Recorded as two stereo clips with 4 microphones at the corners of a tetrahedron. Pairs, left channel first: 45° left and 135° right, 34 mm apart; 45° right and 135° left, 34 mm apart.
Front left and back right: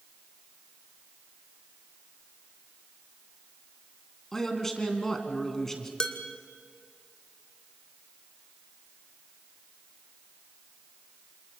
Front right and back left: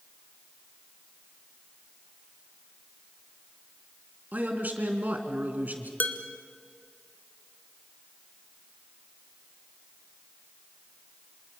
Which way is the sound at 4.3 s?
120° left.